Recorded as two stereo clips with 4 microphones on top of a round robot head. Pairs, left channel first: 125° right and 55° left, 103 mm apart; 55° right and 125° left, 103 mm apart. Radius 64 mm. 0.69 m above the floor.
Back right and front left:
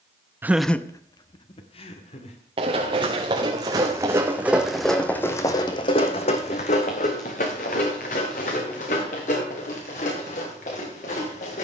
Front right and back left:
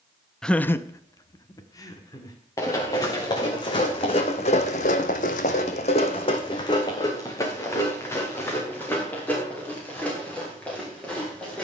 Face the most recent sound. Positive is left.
turn(degrees=-135)